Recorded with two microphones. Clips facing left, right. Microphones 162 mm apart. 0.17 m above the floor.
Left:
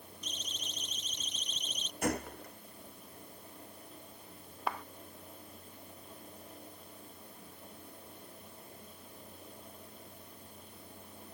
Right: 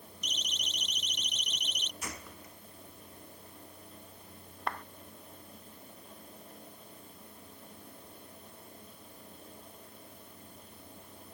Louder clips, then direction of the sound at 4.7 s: Even; 5° left (ahead or behind).